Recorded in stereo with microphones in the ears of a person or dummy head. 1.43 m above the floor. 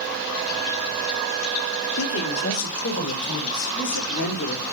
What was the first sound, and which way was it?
A man speaking, 75° left (ahead or behind).